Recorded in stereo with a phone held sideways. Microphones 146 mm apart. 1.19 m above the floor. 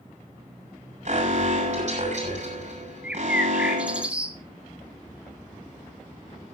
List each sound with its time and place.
1.1 s an alarm: 55° right (ahead or behind), 8 m
3.0 s a bird: 10° right (ahead or behind), 1.6 m